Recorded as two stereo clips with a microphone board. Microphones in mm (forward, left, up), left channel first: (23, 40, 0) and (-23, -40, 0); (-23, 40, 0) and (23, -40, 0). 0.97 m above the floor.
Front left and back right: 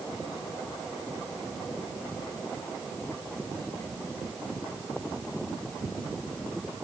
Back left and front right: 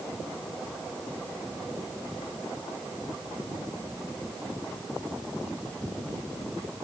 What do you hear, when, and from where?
Only background noise.